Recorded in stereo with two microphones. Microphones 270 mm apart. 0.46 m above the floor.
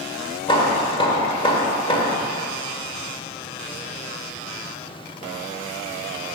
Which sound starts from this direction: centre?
Hammering, at 0.5 s.